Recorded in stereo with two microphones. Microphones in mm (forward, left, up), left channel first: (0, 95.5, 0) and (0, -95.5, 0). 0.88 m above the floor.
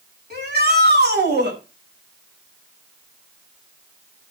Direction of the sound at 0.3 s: 60° right (ahead or behind).